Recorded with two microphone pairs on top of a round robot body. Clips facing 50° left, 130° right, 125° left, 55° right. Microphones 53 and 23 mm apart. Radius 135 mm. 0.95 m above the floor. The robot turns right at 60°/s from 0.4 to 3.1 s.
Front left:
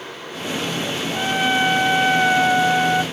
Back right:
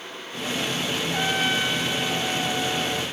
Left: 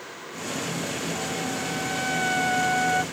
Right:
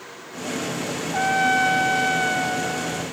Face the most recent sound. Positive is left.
turn(degrees=75)